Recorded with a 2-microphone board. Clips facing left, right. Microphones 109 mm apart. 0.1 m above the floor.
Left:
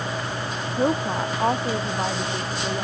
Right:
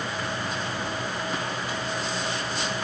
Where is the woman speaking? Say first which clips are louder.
Left 8 dB; 65° left (ahead or behind); by 2.8 s 70° left (ahead or behind).